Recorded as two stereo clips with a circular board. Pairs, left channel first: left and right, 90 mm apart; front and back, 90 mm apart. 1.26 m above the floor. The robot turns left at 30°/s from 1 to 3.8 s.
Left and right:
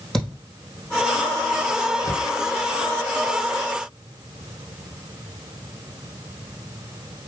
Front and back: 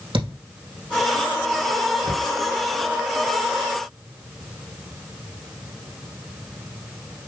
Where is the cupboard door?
145° left, 2.5 m; by 2.3 s 140° left, 2.5 m.